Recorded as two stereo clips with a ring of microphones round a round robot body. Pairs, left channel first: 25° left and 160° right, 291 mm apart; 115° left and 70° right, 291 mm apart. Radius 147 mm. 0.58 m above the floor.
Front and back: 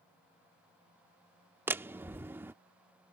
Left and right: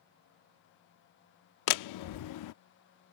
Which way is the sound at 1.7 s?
120° left.